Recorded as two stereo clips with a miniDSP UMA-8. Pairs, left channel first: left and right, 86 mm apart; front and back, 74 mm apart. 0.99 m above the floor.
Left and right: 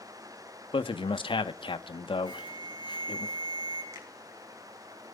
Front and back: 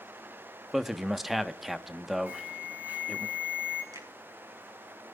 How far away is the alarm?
About 3.5 m.